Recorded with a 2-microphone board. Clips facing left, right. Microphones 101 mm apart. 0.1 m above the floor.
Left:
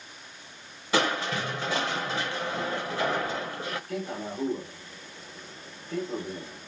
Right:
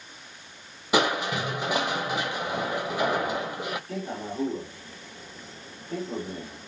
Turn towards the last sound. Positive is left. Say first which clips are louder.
# even
turn(degrees=-40)  # may be behind; listen again after turning